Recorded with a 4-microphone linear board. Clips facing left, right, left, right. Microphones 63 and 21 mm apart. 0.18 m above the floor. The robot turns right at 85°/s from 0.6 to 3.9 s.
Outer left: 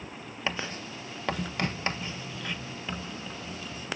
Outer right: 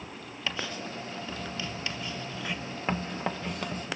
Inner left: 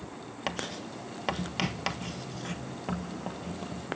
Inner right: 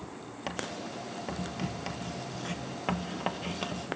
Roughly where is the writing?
Left.